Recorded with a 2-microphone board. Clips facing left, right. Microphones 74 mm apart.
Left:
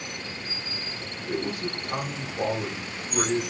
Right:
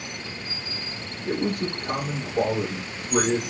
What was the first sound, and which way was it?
A man speaking, 65° right (ahead or behind).